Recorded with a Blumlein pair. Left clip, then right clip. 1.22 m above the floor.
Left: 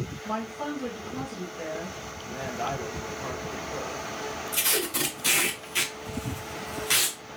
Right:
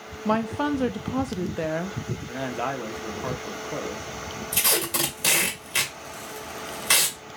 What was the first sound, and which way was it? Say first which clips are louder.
A woman speaking: right 8 dB; 35° right.